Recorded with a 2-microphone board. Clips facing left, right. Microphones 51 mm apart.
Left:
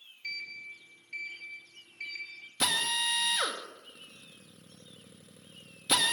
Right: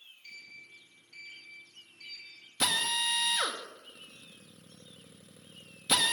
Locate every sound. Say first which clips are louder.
0.2 s a sliding door: left 10 dB; 80° left, 2.0 m
2.6 s a drill: even; 5° left (ahead or behind), 1.7 m